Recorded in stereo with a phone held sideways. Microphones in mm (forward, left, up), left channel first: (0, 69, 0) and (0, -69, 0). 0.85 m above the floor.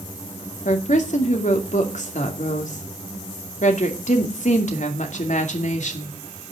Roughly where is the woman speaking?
Left.